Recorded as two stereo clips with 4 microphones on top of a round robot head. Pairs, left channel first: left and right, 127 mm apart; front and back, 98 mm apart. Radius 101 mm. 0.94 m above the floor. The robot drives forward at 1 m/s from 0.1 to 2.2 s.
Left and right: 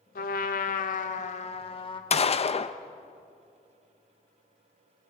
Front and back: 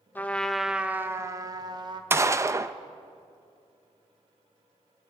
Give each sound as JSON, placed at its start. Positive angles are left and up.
{"t": 0.1, "sound": "a trumpet", "azimuth_deg": 70, "distance_m": 1.3}
{"t": 2.1, "sound": "a gunshot", "azimuth_deg": 115, "distance_m": 0.8}